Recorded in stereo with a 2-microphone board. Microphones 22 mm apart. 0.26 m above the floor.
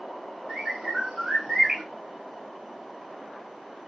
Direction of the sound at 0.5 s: 60° right (ahead or behind).